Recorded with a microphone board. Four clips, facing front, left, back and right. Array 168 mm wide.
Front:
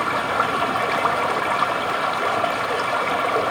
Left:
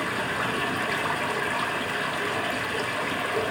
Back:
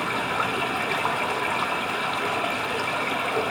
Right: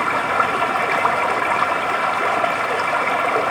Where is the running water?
60° right, 0.8 m.